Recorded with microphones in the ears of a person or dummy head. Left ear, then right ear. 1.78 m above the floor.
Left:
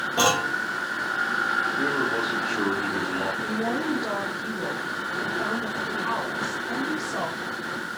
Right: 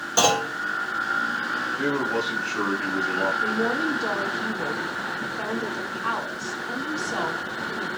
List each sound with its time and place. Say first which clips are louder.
0.2 s a clunk: right 2 dB; 65° right (ahead or behind), 5 m
1.8 s a man speaking: even; 60° right (ahead or behind), 5 m
3.4 s a woman speaking: right 3 dB; 65° right (ahead or behind), 6 m